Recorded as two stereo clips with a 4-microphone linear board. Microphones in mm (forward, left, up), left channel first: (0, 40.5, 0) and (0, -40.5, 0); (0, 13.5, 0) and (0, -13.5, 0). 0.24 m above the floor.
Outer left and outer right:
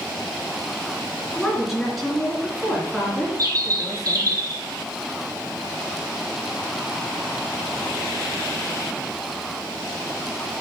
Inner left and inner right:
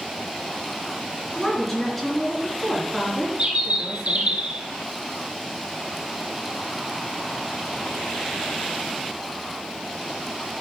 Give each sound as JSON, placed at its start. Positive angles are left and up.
{"t": 1.4, "sound": "a woman speaking", "side_deg": 0, "distance_m": 3.5}
{"t": 3.4, "sound": "a bird", "side_deg": -45, "distance_m": 1.4}